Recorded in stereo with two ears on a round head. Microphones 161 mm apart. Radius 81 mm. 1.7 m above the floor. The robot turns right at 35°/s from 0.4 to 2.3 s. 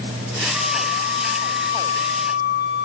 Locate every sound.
0.5 s a flute: 95° left, 5 m; by 2.9 s 160° left, 5 m